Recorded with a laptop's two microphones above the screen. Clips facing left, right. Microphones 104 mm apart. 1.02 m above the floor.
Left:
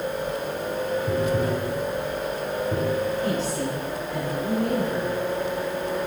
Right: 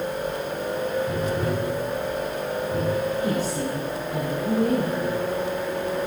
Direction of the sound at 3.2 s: 15° right (ahead or behind).